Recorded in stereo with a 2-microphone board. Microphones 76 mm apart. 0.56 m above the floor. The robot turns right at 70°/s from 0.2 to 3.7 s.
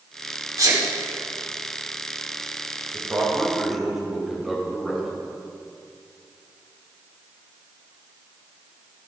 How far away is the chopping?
I don't hear chopping.